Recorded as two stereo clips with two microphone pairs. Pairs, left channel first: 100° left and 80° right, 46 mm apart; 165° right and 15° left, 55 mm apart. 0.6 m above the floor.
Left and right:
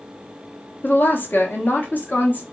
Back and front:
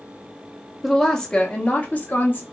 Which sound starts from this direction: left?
A woman speaking, at 0.8 s.